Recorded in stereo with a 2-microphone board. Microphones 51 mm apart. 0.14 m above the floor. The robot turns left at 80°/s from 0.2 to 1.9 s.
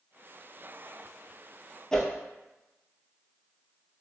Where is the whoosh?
10° left (ahead or behind), 0.5 m.